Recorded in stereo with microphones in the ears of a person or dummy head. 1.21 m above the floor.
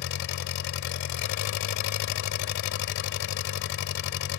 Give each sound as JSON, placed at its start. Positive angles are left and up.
{"t": 0.0, "sound": "an engine running", "side_deg": 60}